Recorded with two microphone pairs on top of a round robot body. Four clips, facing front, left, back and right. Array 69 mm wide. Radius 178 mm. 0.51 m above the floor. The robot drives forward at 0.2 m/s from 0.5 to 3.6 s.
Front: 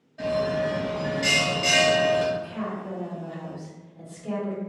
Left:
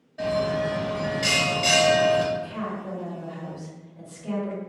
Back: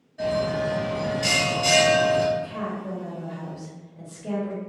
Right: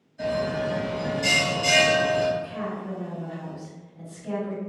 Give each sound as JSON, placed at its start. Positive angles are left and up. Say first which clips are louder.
{"t": 0.2, "sound": "a bell", "louder": "left 2 dB, even", "azimuth_deg": 75, "distance_m": 1.9}
{"t": 2.3, "sound": "a woman speaking", "louder": "even, back 2 dB", "azimuth_deg": 150, "distance_m": 1.5}